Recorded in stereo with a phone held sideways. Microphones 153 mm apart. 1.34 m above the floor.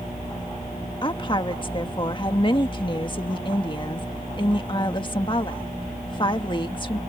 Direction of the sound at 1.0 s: 30° left (ahead or behind).